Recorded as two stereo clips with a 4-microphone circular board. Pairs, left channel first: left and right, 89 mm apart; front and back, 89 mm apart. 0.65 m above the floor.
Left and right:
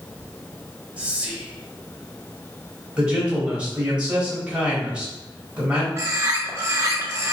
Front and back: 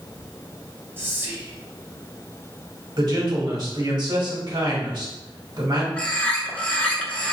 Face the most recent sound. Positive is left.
turn(degrees=-65)